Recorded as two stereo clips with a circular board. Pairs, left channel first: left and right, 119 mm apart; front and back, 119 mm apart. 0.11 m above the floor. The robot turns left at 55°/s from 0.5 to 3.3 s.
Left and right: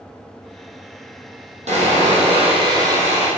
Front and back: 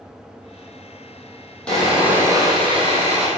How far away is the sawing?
About 3.5 m.